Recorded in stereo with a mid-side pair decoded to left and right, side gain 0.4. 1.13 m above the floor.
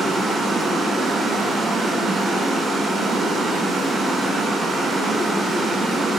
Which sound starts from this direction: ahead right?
Running water, at 0.0 s.